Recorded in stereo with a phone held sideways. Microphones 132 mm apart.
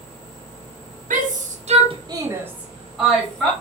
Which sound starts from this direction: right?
A shout, at 1.1 s.